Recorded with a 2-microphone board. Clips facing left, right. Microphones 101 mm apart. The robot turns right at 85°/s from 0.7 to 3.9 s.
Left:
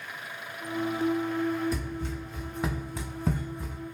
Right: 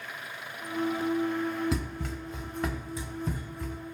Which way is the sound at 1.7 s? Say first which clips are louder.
Even; 85° right.